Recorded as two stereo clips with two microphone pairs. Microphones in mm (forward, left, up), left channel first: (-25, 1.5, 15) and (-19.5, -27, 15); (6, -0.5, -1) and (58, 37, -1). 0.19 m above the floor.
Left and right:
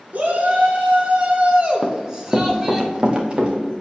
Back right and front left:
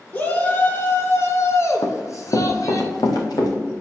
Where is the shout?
85° right, 2.5 m; by 2.8 s 150° right, 2.5 m.